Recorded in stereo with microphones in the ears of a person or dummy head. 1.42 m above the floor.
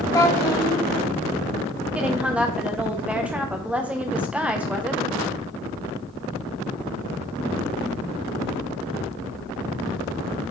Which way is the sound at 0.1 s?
20° left (ahead or behind).